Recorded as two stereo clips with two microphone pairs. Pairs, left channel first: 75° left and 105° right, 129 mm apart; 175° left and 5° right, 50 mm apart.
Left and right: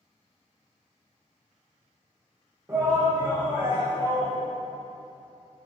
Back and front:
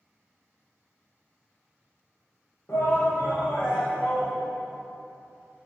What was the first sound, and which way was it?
A shout, 170° right.